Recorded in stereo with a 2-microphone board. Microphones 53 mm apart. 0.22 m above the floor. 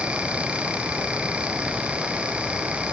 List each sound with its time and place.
Only background noise.